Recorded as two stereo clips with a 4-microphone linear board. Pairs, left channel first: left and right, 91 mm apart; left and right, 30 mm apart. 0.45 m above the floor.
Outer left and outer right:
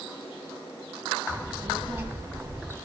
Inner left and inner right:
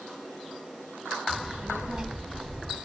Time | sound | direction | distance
1.3 | a child speaking | 25° right (ahead or behind) | 1.8 m